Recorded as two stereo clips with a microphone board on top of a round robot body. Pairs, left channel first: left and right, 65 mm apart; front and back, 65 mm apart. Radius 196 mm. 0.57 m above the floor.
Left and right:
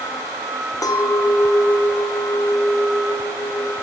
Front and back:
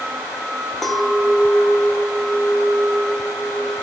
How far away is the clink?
About 1.0 m.